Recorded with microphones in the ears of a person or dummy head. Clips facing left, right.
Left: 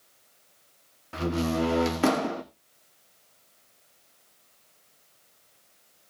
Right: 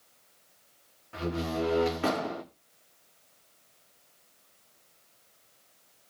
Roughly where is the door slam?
Left.